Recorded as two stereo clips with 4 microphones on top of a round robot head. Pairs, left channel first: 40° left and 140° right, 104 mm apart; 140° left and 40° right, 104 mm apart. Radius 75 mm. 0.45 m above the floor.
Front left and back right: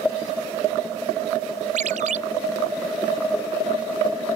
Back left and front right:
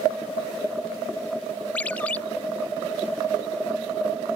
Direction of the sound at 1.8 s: 145° right.